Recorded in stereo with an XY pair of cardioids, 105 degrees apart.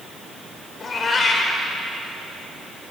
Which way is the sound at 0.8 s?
40° left.